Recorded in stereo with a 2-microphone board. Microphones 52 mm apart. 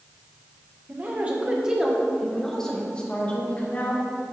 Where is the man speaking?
35° right (ahead or behind), 1.5 m; by 4.0 s 35° left (ahead or behind), 2 m.